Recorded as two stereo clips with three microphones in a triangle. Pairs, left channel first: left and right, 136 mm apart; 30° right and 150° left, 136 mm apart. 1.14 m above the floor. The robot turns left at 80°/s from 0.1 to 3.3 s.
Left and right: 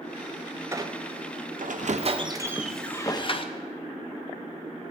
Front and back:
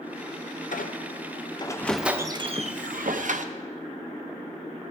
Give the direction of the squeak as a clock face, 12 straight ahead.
1 o'clock.